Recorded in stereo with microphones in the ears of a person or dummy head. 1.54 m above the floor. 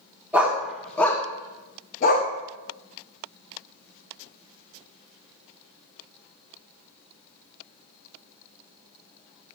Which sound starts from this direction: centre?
A dog barking, at 0.3 s.